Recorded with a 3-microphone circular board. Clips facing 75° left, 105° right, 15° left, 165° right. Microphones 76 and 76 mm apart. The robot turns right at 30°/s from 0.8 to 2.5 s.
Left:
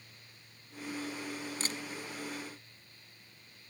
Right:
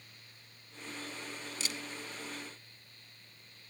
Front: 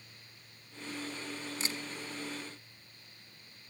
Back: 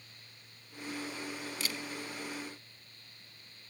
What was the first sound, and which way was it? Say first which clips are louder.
A camera shutter: left 2 dB, front 1 dB; 60° left.